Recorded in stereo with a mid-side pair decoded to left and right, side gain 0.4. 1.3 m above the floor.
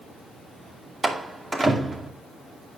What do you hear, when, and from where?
1.0 s a door slam: 25° right, 2 m